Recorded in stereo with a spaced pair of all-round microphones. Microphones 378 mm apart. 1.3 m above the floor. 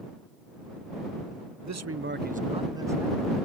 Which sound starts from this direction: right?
A man speaking, at 1.6 s.